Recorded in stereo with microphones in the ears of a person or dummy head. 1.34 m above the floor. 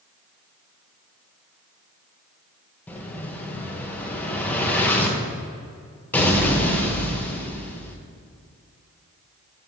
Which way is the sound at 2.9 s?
5° left (ahead or behind).